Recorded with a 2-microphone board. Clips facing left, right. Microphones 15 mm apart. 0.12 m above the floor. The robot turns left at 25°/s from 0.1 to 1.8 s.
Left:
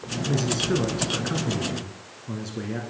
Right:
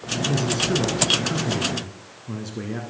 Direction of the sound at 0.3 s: 10° left (ahead or behind).